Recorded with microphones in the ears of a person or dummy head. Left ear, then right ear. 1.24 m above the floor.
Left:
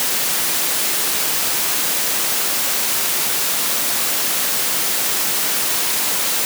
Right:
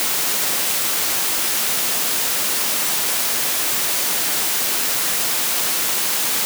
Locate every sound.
Only background noise.